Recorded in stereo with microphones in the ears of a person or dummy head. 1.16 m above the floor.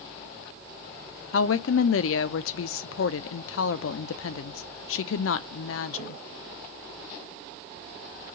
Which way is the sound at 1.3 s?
70° left (ahead or behind).